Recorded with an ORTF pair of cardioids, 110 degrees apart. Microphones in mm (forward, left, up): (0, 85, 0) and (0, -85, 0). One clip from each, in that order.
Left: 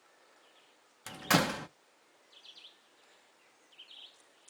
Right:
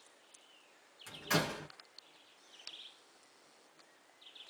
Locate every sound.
1.1 s a door slam: 55° left, 0.7 m